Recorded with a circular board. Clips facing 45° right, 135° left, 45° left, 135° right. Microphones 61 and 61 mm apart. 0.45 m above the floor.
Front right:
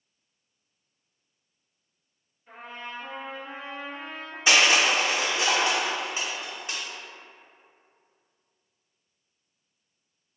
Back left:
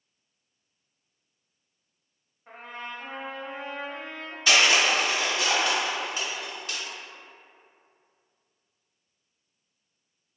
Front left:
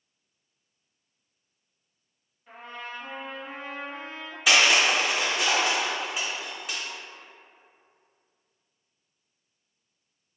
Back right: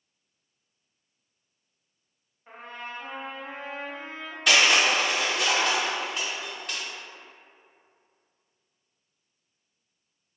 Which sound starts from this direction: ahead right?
Crushing, at 4.5 s.